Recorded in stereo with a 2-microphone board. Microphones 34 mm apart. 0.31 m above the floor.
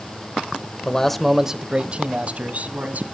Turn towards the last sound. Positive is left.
turn(degrees=-50)  # may be behind; listen again after turning